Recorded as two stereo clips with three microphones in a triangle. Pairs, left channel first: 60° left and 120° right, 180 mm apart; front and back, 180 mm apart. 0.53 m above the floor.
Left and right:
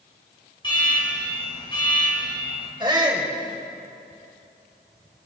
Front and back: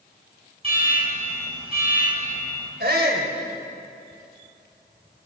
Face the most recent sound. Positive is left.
turn(degrees=180)